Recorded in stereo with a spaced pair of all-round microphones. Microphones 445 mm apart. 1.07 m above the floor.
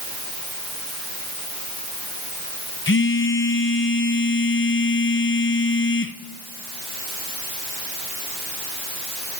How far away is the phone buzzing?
About 0.5 m.